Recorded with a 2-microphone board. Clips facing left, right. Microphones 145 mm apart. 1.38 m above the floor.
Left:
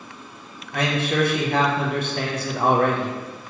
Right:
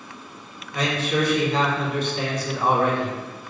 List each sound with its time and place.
0.7 s a man speaking: 60° left (ahead or behind), 0.6 m